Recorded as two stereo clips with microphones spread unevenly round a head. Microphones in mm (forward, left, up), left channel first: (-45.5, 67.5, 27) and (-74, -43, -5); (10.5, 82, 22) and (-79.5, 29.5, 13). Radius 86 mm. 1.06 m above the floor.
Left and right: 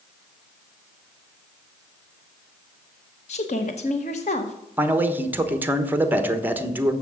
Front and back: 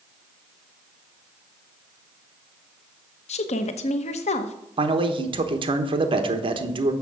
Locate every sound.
3.3 s a woman speaking: 25° left, 0.9 m
4.8 s a man speaking: 170° right, 1.2 m